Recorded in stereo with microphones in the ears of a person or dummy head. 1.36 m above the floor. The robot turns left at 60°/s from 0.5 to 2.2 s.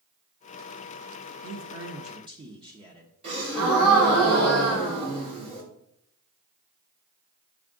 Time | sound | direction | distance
1.4 | a man speaking | 110° right | 0.7 m
3.2 | a gasp | 30° right (ahead or behind) | 3.5 m